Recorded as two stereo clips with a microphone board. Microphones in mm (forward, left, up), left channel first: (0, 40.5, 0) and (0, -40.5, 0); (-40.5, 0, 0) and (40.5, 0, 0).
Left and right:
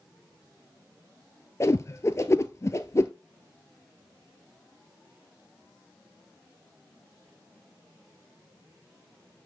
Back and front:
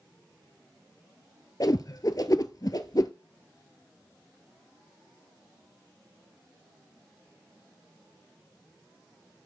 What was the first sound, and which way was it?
A whoosh, 140° left.